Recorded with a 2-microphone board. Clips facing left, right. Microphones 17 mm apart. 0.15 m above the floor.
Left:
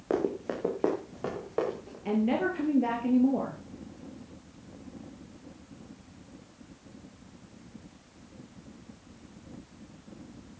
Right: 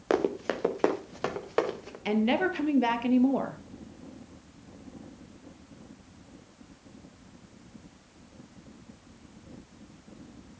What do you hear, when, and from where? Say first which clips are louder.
0.1 s running footsteps: right 2 dB; 85° right, 2 m
2.0 s a woman speaking: right 1 dB; 60° right (ahead or behind), 3 m